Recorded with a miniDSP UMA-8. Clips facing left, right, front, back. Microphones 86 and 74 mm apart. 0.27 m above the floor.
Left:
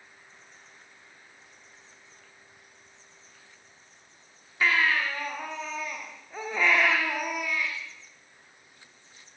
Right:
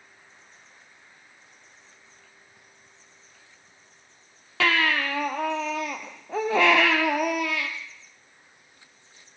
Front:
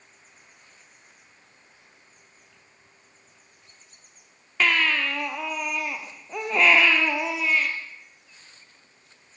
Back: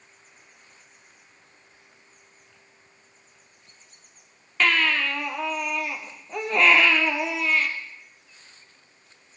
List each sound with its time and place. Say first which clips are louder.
4.6 s a baby crying: right 2 dB, back 1 dB; 85° right, 3 m